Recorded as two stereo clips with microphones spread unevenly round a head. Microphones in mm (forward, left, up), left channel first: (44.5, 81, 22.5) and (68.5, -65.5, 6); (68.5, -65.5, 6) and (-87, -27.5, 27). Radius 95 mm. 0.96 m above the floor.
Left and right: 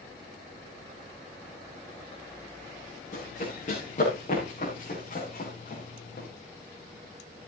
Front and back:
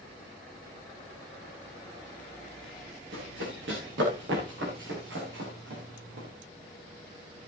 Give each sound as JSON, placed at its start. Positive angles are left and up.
{"t": 3.1, "sound": "running footsteps", "azimuth_deg": 155, "distance_m": 7.0}